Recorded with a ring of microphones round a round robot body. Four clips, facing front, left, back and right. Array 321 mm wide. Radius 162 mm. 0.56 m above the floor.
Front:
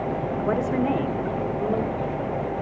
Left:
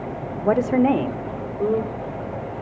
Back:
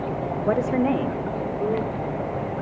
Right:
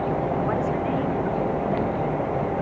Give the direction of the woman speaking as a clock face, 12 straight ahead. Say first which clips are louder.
Left 6 dB, back 3 dB; 9 o'clock.